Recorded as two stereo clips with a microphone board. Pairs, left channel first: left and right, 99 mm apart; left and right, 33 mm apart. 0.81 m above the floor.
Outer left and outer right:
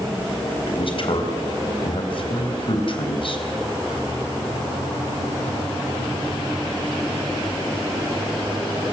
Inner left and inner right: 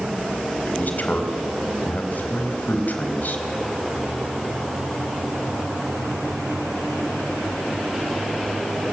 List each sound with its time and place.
0.7 s a man speaking: 60° left (ahead or behind), 4 m